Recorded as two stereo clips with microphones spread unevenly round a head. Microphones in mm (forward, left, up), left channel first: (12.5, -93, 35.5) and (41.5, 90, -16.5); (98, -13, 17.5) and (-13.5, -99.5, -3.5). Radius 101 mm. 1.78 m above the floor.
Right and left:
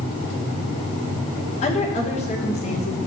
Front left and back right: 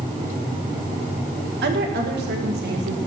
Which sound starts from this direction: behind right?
A woman speaking, at 1.6 s.